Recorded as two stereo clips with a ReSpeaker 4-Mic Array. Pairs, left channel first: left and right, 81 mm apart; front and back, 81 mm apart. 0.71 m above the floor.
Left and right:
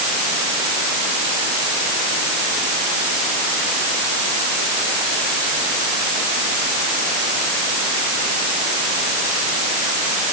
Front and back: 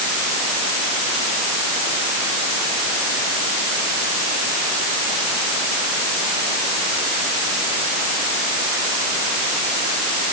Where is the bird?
I don't hear a bird.